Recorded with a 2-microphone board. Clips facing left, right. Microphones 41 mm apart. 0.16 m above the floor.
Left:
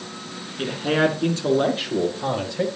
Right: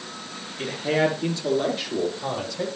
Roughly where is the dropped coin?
I don't hear a dropped coin.